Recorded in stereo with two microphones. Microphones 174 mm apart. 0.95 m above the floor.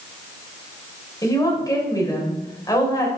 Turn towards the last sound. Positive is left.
turn(degrees=20)  # may be behind; listen again after turning